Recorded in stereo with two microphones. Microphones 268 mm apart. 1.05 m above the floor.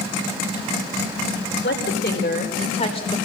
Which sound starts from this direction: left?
A woman speaking, at 1.6 s.